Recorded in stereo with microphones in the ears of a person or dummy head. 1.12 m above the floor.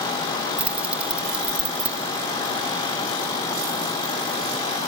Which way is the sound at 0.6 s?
5° right (ahead or behind).